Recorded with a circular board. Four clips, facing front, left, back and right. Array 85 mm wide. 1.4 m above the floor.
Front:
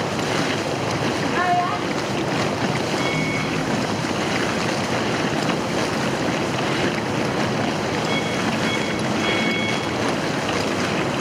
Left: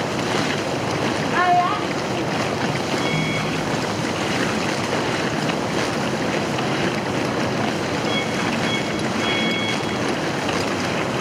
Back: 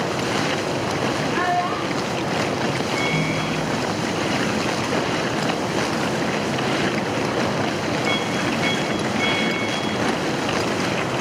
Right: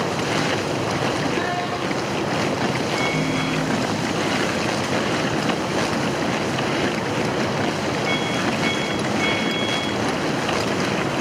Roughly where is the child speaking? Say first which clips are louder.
Left 6 dB, front 3 dB; left.